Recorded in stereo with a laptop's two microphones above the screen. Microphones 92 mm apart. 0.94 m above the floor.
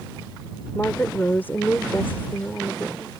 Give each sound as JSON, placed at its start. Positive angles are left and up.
{"t": 0.8, "sound": "a woman speaking", "side_deg": 20}